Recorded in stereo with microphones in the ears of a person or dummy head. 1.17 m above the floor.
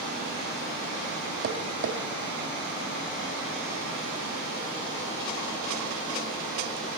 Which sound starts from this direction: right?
Tapping, at 1.4 s.